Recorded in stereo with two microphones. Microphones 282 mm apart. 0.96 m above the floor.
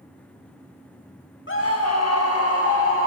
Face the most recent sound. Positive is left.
turn(degrees=50)  # may be behind; listen again after turning